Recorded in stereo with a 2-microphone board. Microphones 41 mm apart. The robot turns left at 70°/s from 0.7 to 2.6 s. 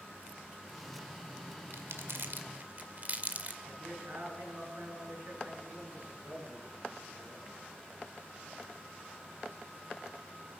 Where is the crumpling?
65° right (ahead or behind), 2 m; by 3.6 s 40° right (ahead or behind), 2 m.